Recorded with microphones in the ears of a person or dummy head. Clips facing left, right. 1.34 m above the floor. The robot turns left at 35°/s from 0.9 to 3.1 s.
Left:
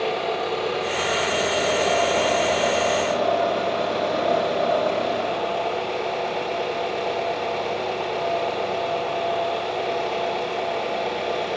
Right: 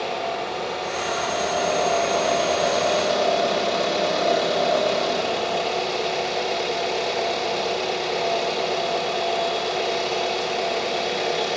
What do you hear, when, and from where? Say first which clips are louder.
0.0 s an engine running: left 3 dB; 50° left, 4 m; by 11.6 s 25° right, 4 m